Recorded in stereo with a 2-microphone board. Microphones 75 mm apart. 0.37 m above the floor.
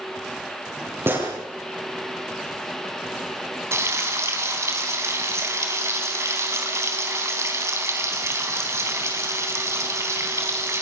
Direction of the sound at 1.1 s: 30° right (ahead or behind).